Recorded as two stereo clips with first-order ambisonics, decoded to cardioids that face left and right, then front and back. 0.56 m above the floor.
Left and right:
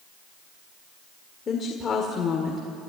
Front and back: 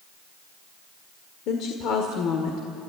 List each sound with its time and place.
1.5 s a woman speaking: 25° left, 1.7 m